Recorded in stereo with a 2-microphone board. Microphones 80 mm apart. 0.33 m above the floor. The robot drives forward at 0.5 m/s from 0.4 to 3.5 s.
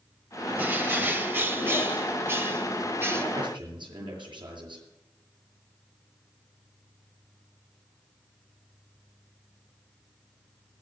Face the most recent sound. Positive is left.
turn(degrees=-65)  # may be behind; listen again after turning